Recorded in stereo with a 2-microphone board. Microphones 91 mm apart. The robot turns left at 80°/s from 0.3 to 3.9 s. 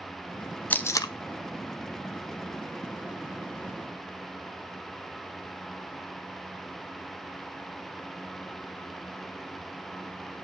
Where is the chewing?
No chewing in this recording.